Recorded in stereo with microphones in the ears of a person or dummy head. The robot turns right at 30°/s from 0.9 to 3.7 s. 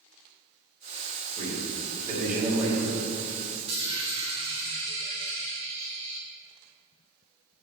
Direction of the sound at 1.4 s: 40° right.